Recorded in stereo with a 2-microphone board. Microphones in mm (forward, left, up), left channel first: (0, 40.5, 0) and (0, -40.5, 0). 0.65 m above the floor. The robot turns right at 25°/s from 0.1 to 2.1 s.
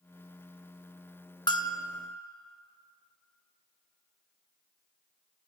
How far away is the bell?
About 0.6 m.